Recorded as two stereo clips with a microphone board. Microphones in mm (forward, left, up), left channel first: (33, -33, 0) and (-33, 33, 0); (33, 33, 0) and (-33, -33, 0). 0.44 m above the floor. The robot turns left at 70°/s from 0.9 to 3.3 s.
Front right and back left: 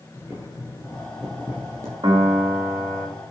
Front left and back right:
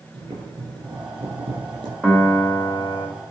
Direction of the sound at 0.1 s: 110° right.